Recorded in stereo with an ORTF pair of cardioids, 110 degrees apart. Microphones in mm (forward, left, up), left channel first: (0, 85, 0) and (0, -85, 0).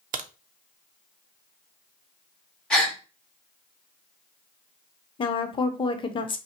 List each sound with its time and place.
0.1 s a crack: 50° right, 0.6 m
2.7 s a gasp: 5° left, 1.8 m
5.2 s a woman speaking: 30° left, 0.9 m